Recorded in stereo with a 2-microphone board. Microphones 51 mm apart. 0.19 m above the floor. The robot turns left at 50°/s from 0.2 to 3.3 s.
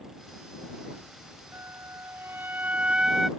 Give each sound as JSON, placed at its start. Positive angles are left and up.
{"t": 1.5, "sound": "a flute", "azimuth_deg": -85}